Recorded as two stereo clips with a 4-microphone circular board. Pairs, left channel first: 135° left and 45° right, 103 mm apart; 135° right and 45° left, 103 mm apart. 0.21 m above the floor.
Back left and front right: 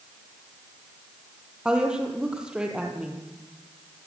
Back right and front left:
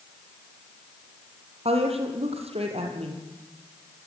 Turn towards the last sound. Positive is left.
turn(degrees=35)